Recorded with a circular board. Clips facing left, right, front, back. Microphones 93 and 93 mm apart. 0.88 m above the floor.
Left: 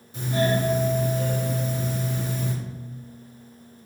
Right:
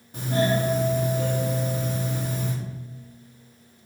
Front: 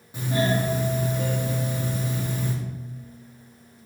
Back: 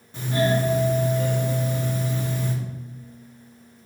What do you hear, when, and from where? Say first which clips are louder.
0.1 s a doorbell: even, back 2 dB; 75° right, 2.0 m